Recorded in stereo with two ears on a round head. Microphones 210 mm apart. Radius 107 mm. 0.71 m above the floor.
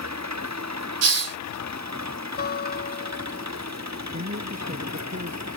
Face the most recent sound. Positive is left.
turn(degrees=-40)  # may be behind; listen again after turning